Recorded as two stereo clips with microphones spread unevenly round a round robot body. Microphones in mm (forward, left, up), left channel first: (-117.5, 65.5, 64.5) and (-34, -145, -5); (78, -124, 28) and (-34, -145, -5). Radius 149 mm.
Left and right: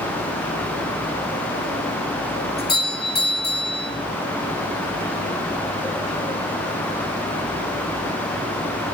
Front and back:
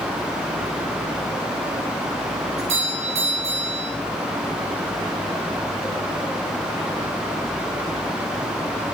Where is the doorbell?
165° left, 5.5 m.